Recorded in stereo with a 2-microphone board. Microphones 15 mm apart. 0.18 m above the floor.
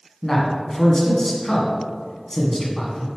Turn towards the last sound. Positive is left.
turn(degrees=25)  # may be behind; listen again after turning